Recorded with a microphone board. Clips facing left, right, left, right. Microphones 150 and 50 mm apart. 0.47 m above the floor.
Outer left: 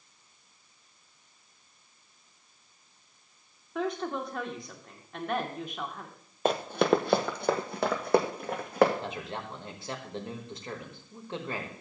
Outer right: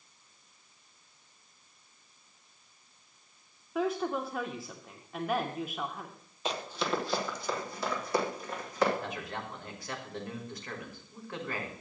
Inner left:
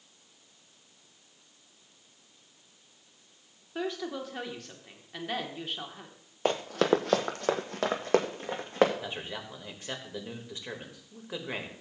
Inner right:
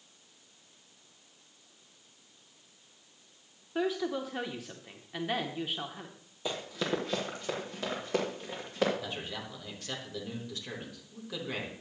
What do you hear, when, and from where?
3.8 s a woman speaking: 5° right (ahead or behind), 0.9 m
6.5 s running footsteps: 55° left (ahead or behind), 0.7 m; by 8.9 s 65° left (ahead or behind), 2.0 m
9.0 s a man speaking: 25° left (ahead or behind), 1.4 m